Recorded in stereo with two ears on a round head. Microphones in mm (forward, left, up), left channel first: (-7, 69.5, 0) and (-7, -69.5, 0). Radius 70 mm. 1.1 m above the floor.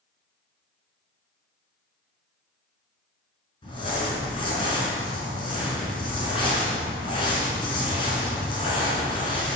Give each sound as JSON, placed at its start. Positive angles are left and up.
{"t": 3.6, "sound": "crumpling", "side_deg": 35, "distance_m": 4.5}